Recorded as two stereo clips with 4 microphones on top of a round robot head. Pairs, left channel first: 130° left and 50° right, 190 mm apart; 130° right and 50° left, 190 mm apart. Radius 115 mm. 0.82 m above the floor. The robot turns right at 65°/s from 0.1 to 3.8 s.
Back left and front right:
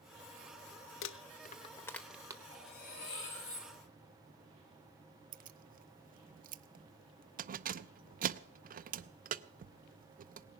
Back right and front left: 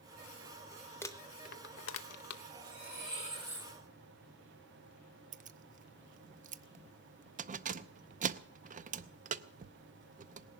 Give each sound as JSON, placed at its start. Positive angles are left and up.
{"t": 1.0, "sound": "crumpling", "azimuth_deg": 150, "distance_m": 0.7}
{"t": 2.5, "sound": "cutlery clinking", "azimuth_deg": 55, "distance_m": 8.0}
{"t": 5.3, "sound": "keys jangling", "azimuth_deg": 0, "distance_m": 0.6}